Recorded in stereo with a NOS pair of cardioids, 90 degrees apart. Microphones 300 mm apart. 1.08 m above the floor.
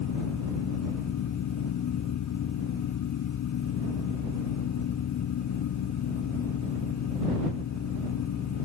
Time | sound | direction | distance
0.0 | a fan | 70° left | ?